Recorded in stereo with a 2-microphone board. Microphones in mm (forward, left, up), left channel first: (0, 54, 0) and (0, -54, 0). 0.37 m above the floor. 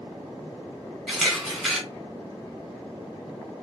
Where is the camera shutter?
Centre (ahead or behind), 1.8 m.